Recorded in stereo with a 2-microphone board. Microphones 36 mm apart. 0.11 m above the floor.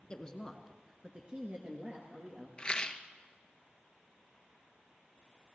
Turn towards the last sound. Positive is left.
turn(degrees=25)  # may be behind; listen again after turning